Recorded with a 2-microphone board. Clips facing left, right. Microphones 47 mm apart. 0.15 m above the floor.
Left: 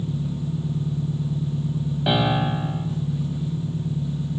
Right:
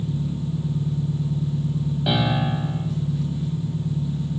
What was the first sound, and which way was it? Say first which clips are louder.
An engine running: right 1 dB; 25° left (ahead or behind).